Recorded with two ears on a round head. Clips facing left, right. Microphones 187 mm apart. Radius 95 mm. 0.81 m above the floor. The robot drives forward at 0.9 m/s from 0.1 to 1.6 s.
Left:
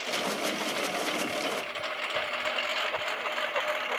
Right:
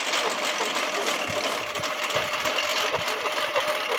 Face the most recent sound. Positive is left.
turn(degrees=-55)  # may be behind; listen again after turning